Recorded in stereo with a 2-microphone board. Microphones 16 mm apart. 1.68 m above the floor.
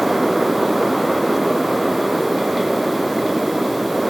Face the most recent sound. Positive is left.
No sound to turn to.